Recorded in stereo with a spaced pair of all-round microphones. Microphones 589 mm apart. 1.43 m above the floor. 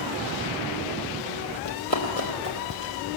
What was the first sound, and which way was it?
Running footsteps, 30° left (ahead or behind).